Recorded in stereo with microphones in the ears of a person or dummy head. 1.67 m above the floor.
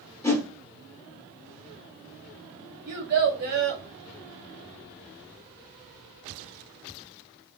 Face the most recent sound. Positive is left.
turn(degrees=-45)  # may be behind; listen again after turning